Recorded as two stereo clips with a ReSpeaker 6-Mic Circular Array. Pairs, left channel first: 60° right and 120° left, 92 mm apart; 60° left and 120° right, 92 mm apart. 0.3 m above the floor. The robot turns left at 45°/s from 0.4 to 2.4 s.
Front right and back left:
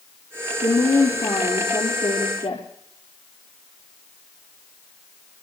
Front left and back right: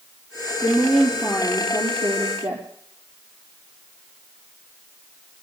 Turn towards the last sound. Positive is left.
turn(degrees=-100)